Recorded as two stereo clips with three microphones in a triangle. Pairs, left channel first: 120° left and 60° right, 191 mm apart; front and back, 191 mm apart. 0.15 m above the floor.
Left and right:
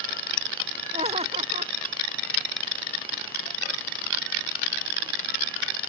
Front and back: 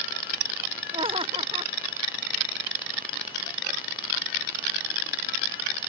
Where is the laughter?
120° right.